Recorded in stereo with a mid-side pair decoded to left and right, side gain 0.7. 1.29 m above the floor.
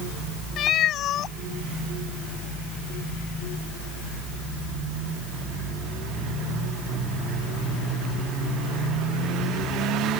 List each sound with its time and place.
0.6 s a cat meowing: 50° left